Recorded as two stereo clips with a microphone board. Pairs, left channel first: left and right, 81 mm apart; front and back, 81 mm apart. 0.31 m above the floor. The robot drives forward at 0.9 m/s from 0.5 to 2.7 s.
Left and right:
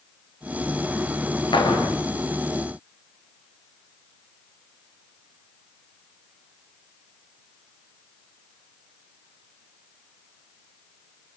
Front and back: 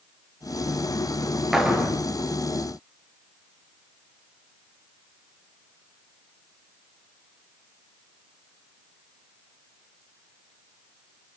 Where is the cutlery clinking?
I don't hear cutlery clinking.